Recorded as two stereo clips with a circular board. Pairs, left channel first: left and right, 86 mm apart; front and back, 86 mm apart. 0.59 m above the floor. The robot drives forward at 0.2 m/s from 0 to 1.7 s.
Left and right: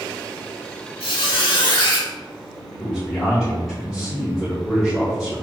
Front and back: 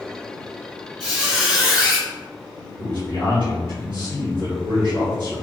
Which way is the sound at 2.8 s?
175° left.